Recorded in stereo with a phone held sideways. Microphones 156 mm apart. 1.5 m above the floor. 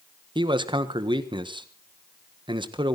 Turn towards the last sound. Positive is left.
turn(degrees=-30)  # may be behind; listen again after turning